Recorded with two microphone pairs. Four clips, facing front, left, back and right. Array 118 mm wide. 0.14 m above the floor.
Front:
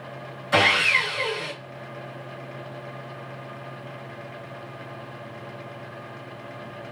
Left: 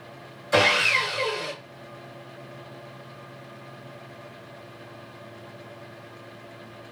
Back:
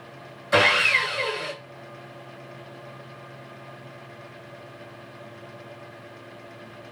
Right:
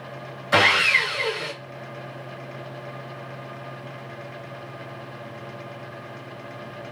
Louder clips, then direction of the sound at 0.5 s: Right 1 dB, back 1 dB; 110° right.